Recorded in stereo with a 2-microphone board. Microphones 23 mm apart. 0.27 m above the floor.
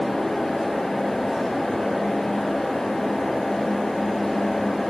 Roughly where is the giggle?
I don't hear a giggle.